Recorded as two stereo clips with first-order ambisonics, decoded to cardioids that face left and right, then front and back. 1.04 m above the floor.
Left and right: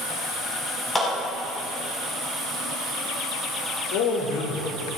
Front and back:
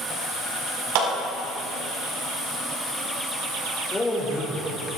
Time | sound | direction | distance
0.9 | a clap | 170° left | 6 m
3.9 | a man speaking | 85° left | 3 m